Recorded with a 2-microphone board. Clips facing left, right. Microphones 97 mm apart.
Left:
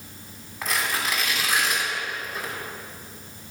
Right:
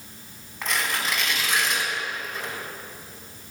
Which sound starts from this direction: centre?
Tearing paper, at 0.6 s.